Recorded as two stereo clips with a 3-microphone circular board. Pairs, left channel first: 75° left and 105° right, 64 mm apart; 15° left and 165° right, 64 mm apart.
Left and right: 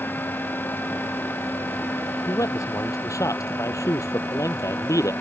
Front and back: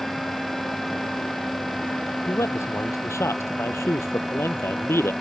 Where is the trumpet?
No trumpet in this recording.